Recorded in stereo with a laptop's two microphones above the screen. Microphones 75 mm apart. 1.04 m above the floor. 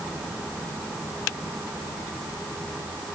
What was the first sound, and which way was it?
Only background noise.